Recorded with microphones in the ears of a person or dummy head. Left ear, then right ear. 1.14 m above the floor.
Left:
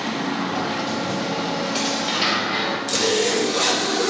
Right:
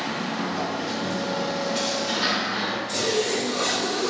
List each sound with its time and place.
0.1 s a sliding door: 15° left (ahead or behind), 1.4 m
2.9 s a zipper: 60° left (ahead or behind), 1.1 m